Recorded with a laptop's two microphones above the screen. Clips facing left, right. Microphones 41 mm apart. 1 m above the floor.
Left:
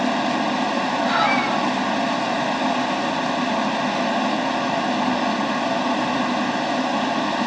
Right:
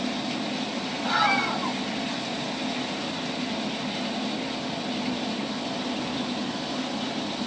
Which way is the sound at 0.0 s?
85° left.